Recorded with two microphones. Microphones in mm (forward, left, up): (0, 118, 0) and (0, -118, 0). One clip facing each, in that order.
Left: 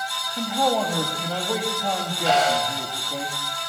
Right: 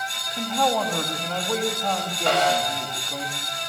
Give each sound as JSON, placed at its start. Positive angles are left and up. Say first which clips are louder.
{"t": 0.4, "sound": "a man speaking", "louder": "left 1 dB", "side_deg": 10, "distance_m": 7.0}
{"t": 2.3, "sound": "a snare drum", "louder": "even", "side_deg": -65, "distance_m": 9.0}